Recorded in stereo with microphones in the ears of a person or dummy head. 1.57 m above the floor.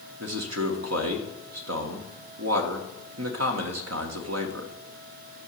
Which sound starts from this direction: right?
A man speaking, at 0.2 s.